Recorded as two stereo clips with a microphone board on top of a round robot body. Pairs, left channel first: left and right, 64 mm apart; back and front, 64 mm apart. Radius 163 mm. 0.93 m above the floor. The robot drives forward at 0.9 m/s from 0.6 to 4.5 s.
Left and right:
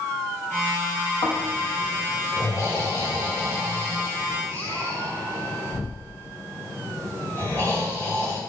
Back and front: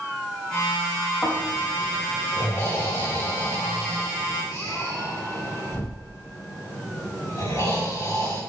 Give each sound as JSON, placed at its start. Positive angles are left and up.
{"t": 1.2, "sound": "snoring", "azimuth_deg": 120, "distance_m": 4.0}